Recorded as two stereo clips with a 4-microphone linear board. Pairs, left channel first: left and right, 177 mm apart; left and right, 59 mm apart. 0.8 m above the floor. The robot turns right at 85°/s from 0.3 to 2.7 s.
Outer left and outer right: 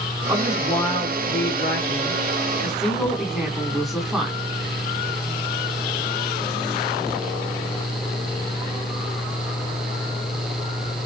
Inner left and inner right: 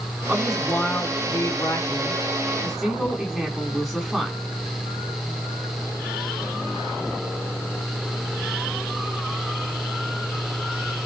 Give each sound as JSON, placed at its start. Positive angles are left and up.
{"t": 0.3, "sound": "a woman speaking", "azimuth_deg": -25, "distance_m": 8.5}